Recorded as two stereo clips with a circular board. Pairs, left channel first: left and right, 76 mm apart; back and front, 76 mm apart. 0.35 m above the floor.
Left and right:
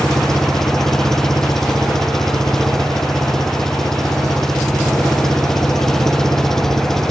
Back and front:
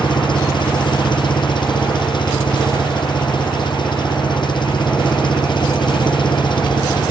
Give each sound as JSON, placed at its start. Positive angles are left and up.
{"t": 0.0, "sound": "an engine running", "azimuth_deg": 175}